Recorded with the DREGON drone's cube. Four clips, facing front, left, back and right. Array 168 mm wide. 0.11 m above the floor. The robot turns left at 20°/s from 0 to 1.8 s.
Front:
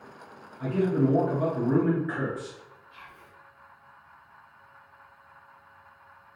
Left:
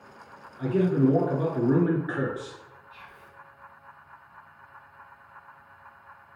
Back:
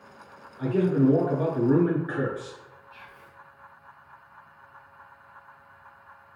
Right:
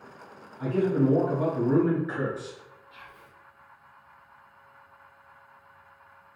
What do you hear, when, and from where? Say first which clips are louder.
0.6 s a man speaking: left 1 dB, back 3 dB; 140° left, 1.2 m; by 2.6 s 115° left, 1.2 m
2.9 s whispering: left 1 dB, even; 95° right, 1.7 m